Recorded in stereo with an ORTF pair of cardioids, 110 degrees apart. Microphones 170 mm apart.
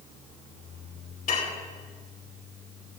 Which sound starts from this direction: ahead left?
Dishes clattering, at 1.3 s.